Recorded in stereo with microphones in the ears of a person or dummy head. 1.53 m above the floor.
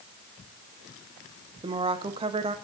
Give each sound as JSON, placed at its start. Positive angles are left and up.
{"t": 1.6, "sound": "a woman speaking", "side_deg": -30, "distance_m": 0.7}